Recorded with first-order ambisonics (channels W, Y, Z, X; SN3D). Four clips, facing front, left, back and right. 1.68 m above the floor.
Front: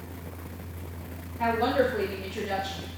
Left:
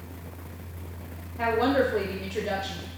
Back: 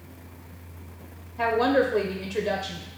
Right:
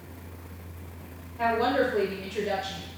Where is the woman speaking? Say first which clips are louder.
Left 1 dB, back 3 dB; 160° left, 0.7 m.